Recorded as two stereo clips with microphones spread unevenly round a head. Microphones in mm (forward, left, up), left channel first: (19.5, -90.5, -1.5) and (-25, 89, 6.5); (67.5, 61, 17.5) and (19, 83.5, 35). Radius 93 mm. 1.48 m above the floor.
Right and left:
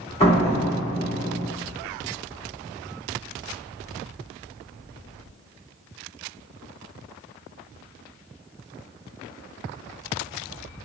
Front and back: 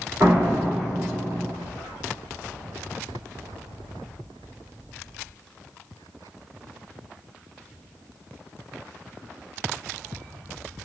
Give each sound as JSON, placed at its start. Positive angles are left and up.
{"t": 0.2, "sound": "a door slam", "azimuth_deg": -135, "distance_m": 1.6}